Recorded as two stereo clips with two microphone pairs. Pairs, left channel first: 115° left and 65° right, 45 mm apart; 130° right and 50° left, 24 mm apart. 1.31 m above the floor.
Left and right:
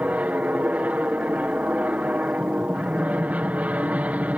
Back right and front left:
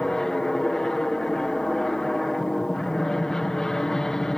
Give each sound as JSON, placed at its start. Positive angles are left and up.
{"t": 0.0, "sound": "an aircraft", "azimuth_deg": -85}